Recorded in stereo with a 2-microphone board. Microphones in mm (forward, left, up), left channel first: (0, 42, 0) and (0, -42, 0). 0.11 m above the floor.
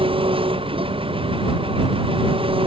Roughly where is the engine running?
Right.